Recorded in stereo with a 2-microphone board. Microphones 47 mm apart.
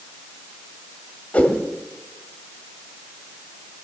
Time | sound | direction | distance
1.3 | a whoosh | 30° left (ahead or behind) | 1.8 m